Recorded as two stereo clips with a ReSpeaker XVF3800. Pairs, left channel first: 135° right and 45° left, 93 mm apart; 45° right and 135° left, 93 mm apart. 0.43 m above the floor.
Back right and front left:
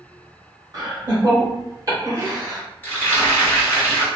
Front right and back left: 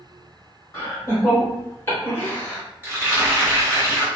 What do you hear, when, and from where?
0.7 s laughter: 10° left, 2.0 m
2.8 s frying: straight behind, 1.5 m